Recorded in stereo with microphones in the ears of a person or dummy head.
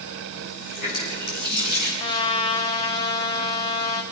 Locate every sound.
0.4 s a running tap: 45° left (ahead or behind), 8 m
2.0 s a trumpet: 20° left (ahead or behind), 1.7 m